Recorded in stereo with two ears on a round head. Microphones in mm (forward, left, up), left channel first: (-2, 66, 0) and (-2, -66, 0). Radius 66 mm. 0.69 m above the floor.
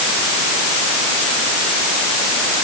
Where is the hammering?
No hammering in this recording.